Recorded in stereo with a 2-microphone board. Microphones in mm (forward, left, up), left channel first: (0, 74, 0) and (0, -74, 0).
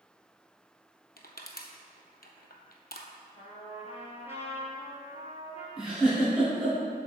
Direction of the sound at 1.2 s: 80° left.